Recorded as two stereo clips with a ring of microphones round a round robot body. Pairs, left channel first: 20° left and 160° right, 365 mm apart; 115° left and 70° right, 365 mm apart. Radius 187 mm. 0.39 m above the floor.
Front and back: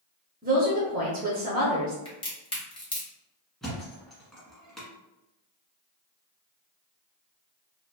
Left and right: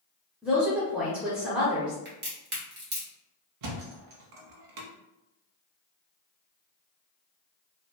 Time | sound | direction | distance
0.4 | a woman speaking | 150° right | 0.9 m
2.0 | a crack | 40° right | 1.2 m
3.6 | a thud | 65° right | 0.8 m